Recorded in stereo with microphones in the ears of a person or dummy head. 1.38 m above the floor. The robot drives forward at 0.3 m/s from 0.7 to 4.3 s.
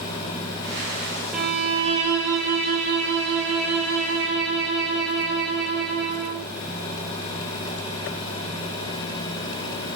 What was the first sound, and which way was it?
A violin, centre (ahead or behind).